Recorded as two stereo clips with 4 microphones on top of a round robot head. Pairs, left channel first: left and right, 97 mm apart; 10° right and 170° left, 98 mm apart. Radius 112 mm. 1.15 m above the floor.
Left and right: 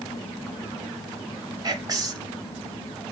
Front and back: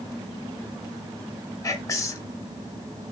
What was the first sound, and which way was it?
Whispering, 55° right.